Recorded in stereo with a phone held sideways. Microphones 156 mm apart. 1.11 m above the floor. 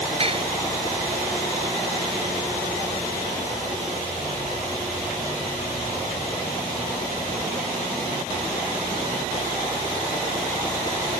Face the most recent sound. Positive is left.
turn(degrees=-40)  # may be behind; listen again after turning